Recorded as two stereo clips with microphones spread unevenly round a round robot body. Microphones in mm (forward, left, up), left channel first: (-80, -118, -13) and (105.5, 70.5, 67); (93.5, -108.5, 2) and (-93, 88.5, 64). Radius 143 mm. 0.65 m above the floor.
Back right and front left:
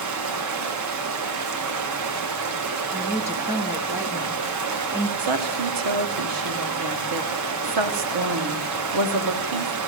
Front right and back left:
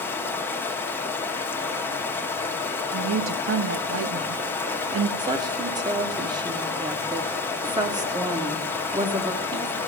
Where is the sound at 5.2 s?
50° left, 1.1 m.